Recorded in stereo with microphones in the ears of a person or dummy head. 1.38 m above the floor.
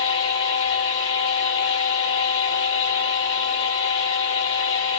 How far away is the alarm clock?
I don't hear an alarm clock.